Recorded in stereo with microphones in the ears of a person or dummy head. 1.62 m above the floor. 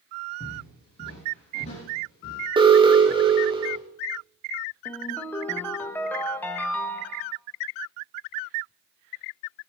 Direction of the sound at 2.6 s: 25° right (ahead or behind).